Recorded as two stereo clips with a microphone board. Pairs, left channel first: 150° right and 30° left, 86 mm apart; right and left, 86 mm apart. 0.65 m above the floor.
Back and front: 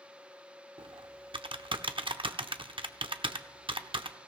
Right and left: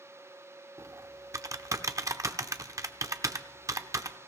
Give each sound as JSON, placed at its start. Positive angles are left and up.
{"t": 0.8, "sound": "typing on a keyboard", "azimuth_deg": 40, "distance_m": 0.7}